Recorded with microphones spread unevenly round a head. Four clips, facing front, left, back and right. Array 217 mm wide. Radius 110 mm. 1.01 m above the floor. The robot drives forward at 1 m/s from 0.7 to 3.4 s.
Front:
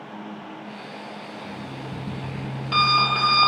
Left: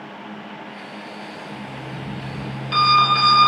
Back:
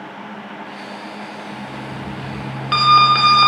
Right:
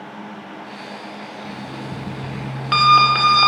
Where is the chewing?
I don't hear chewing.